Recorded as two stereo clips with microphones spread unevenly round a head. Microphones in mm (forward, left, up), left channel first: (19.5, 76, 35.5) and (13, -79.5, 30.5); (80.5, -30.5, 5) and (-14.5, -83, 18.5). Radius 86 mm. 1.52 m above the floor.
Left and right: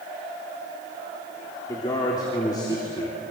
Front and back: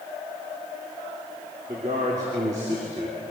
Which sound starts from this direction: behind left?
A man speaking, at 1.7 s.